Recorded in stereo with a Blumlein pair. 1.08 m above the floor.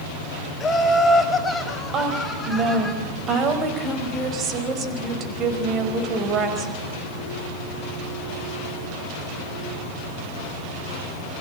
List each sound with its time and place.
0.6 s laughter: 15° left, 4.5 m; by 2.9 s straight ahead, 7 m
1.9 s a woman speaking: 30° right, 4.5 m